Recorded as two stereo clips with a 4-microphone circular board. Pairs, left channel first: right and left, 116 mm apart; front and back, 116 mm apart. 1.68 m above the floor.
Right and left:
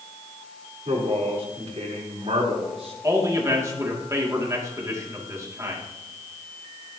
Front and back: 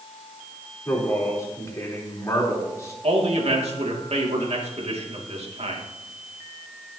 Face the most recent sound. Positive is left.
turn(degrees=155)